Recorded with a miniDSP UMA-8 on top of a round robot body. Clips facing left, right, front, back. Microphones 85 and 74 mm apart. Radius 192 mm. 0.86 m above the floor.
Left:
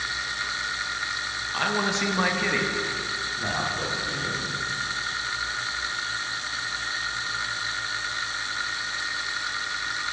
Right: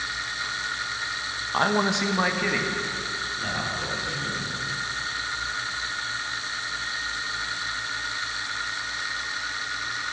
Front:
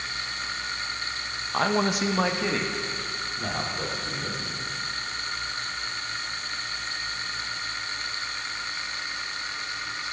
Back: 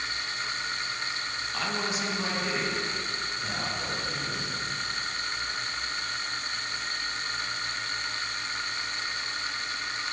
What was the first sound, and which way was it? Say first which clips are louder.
A man speaking: right 3 dB, front 8 dB; 40° right.